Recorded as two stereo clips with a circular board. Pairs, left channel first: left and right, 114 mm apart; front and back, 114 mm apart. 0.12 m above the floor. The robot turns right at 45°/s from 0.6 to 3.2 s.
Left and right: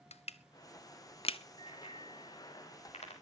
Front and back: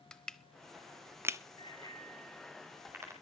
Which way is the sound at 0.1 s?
85° left.